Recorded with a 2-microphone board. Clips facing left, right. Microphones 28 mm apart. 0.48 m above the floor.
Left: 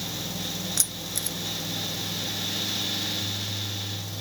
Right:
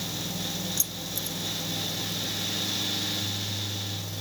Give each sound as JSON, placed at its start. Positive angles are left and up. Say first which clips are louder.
{"t": 0.8, "sound": "keys jangling", "louder": "left 2 dB", "side_deg": 70}